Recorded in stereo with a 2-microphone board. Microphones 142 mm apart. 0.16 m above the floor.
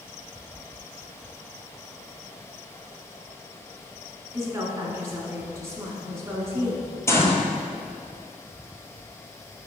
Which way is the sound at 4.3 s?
20° right (ahead or behind).